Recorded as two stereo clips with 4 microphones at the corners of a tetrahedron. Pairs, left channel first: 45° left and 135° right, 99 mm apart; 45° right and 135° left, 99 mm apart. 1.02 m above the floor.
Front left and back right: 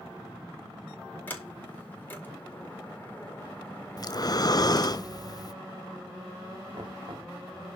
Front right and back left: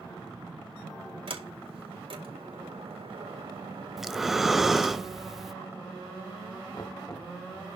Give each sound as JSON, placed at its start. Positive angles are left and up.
{"t": 1.3, "sound": "a sliding door", "azimuth_deg": 115, "distance_m": 4.5}
{"t": 4.0, "sound": "breathing", "azimuth_deg": 50, "distance_m": 0.7}
{"t": 6.7, "sound": "knocking", "azimuth_deg": -95, "distance_m": 2.0}